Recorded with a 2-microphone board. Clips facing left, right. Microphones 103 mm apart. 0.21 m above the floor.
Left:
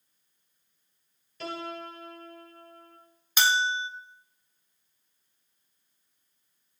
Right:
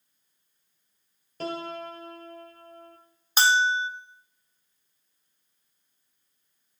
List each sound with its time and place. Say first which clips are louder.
1.4 s a piano: right 3 dB; 45° right (ahead or behind), 1.5 m
3.4 s a bell: right 4 dB; 35° right (ahead or behind), 0.8 m